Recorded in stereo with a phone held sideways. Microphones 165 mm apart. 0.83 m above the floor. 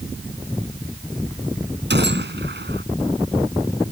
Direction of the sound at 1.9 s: 80° right.